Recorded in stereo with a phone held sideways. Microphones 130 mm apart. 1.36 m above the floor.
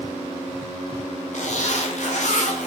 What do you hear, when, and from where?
1.3 s a zipper: 65° left (ahead or behind), 0.7 m